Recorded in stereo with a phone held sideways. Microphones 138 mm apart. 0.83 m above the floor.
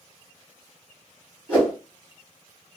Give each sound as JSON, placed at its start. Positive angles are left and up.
{"t": 1.5, "sound": "a whoosh", "side_deg": 10, "distance_m": 1.2}